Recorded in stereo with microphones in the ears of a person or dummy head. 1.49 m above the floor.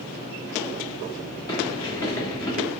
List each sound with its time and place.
1.5 s a sliding door: 15° left (ahead or behind), 0.8 m